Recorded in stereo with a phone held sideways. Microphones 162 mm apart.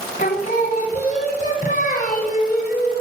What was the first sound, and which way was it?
Singing, 45° left (ahead or behind).